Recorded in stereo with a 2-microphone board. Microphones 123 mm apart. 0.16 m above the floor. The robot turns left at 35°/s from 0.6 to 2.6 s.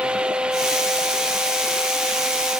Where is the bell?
No bell in this recording.